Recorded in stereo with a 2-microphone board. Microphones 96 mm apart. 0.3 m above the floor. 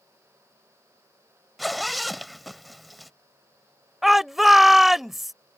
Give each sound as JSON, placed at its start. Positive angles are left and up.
{"t": 1.6, "sound": "a zipper", "side_deg": 0}
{"t": 4.0, "sound": "a shout", "side_deg": 0}